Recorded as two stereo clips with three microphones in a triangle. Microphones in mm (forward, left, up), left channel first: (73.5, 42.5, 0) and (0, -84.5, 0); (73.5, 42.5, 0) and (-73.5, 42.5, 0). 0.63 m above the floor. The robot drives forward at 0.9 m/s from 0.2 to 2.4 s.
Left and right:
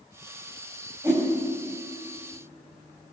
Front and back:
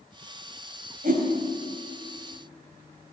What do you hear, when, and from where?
1.0 s a whoosh: 170° left, 3.5 m